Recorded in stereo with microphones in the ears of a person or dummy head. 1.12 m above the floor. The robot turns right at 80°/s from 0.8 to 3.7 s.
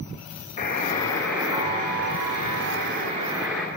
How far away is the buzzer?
About 1.0 m.